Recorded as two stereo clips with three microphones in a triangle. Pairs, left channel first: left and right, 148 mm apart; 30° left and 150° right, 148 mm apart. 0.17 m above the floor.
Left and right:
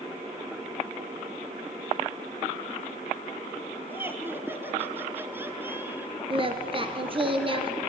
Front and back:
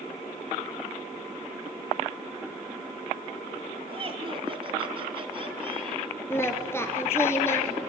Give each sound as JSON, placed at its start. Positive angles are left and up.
{"t": 3.9, "sound": "laughter", "azimuth_deg": -155, "distance_m": 1.3}
{"t": 6.3, "sound": "singing", "azimuth_deg": -45, "distance_m": 1.2}